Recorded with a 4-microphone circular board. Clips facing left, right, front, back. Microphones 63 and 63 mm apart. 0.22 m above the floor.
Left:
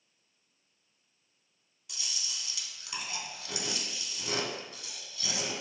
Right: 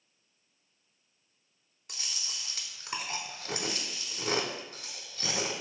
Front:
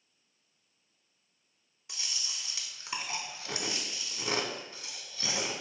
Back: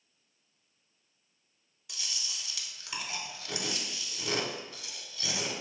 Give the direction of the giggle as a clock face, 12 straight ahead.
No giggle in this recording.